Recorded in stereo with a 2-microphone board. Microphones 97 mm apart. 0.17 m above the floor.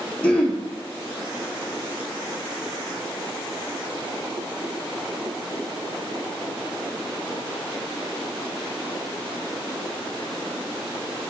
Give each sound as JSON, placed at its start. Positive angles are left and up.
{"t": 0.2, "sound": "throat clearing", "side_deg": 10, "distance_m": 1.0}